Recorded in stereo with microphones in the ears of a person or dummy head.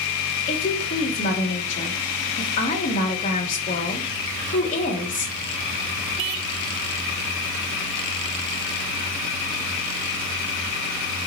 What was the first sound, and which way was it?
A woman speaking, 40° left (ahead or behind).